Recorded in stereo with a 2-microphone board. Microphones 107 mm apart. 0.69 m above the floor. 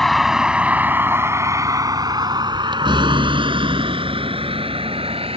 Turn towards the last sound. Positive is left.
turn(degrees=-65)  # may be behind; listen again after turning